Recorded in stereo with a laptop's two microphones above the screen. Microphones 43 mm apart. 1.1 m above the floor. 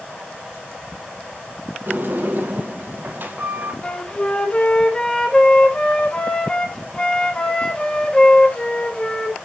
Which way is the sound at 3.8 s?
20° left (ahead or behind).